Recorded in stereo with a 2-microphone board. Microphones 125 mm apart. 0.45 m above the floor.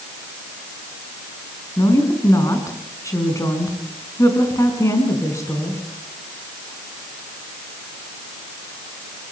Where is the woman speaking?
25° left (ahead or behind), 5.5 m.